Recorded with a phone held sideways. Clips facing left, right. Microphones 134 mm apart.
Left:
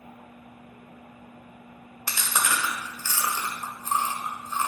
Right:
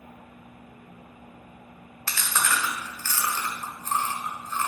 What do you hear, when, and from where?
2.1 s chewing: 15° left (ahead or behind), 1.3 m